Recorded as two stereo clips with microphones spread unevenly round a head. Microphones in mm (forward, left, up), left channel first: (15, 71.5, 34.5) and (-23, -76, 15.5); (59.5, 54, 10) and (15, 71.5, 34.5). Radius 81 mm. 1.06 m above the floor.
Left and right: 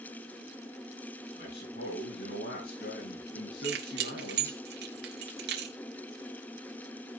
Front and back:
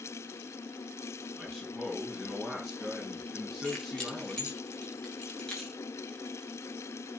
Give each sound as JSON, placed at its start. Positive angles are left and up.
{"t": 1.4, "sound": "a man speaking", "azimuth_deg": 80, "distance_m": 9.0}
{"t": 3.6, "sound": "keys jangling", "azimuth_deg": -105, "distance_m": 2.5}